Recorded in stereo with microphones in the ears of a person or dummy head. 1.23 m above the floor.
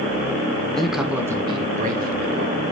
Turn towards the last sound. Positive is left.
turn(degrees=-50)  # may be behind; listen again after turning